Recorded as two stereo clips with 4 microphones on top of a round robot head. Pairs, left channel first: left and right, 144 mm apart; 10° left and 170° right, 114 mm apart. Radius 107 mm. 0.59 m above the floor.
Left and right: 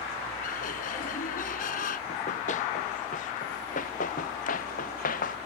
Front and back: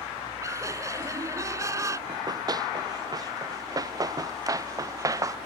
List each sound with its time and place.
0.4 s laughter: 130° left
2.1 s running footsteps: 135° left; by 5.4 s 130° left